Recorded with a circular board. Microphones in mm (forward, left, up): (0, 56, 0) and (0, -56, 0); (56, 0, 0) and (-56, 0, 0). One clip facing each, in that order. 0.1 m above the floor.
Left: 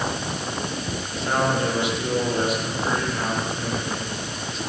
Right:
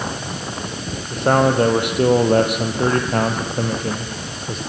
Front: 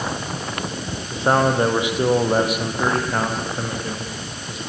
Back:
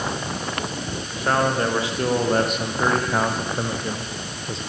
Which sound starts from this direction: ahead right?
A man speaking, at 1.1 s.